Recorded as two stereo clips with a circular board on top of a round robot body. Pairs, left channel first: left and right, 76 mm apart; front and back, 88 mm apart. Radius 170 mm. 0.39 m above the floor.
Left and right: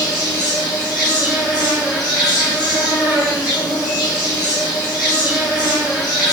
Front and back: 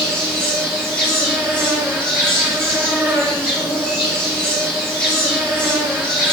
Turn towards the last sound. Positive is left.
turn(degrees=115)